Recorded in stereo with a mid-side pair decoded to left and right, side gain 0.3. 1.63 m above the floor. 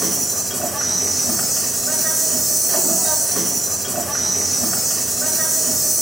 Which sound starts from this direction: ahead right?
An insect, at 0.0 s.